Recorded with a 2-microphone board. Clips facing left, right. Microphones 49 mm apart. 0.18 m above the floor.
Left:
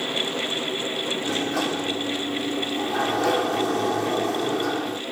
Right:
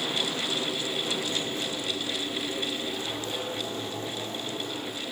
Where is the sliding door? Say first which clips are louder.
Left 7 dB; 80° left, 2.5 m.